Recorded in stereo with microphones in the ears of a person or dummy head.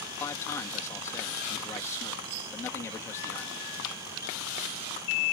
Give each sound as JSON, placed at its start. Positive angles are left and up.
{"t": 0.2, "sound": "a man speaking", "side_deg": 15}